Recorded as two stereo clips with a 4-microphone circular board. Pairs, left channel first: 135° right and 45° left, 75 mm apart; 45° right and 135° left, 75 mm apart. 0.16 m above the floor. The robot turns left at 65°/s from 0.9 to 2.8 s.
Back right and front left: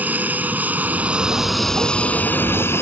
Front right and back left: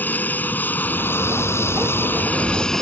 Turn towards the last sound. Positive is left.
turn(degrees=-125)